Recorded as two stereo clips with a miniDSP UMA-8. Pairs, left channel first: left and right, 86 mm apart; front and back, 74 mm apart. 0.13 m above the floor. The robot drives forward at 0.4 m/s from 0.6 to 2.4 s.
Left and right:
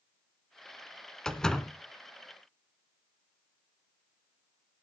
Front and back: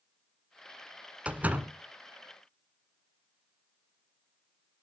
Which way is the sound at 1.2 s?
160° left.